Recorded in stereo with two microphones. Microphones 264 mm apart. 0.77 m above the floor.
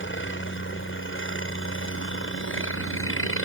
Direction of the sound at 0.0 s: 45° left (ahead or behind).